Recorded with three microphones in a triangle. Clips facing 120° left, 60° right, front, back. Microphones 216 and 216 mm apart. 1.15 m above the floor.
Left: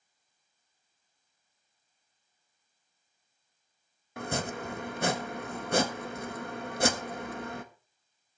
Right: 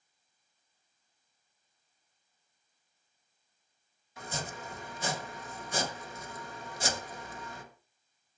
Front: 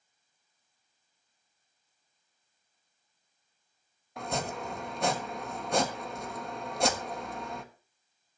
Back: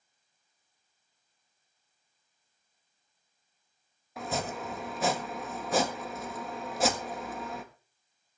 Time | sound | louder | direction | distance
4.2 | chopping | left 7 dB, even | 95° left | 1.4 m